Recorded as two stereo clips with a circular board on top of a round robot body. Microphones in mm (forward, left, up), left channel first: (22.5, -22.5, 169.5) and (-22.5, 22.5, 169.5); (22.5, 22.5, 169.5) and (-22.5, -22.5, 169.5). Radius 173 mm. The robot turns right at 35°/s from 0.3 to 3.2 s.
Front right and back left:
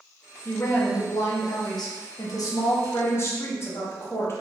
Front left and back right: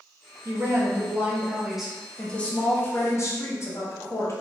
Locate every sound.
0.5 s a woman speaking: 95° right, 0.9 m; by 4.3 s straight ahead, 0.9 m